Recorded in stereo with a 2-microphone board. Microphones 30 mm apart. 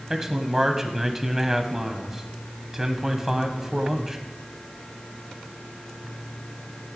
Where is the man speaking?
10° right (ahead or behind), 1.1 m.